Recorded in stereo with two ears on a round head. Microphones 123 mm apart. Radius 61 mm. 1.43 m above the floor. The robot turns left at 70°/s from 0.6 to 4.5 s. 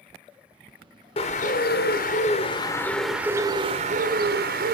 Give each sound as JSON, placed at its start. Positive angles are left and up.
{"t": 1.2, "sound": "a bird", "azimuth_deg": 135, "distance_m": 1.0}